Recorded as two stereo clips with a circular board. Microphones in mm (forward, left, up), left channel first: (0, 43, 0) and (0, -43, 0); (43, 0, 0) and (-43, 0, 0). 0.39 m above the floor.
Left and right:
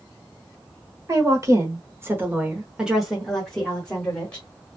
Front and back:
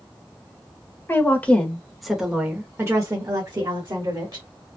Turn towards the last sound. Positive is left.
turn(degrees=160)